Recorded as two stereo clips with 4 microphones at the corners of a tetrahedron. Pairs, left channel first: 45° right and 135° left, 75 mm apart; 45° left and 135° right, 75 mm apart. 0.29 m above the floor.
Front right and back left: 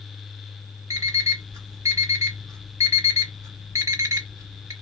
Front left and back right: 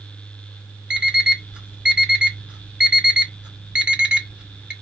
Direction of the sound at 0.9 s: 155° left.